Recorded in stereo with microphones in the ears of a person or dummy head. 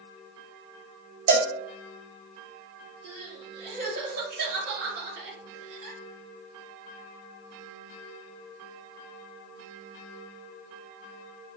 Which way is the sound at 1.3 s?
45° right (ahead or behind).